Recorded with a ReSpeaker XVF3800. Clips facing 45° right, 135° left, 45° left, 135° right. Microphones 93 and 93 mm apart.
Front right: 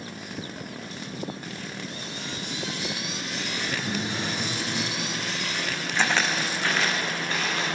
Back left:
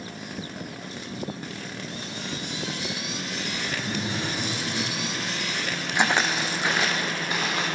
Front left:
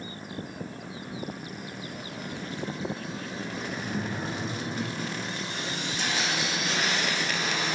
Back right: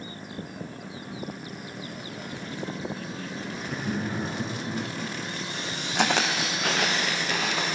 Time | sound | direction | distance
3.6 | laughter | 120° right | 2.5 m
6.0 | footsteps | 150° right | 0.6 m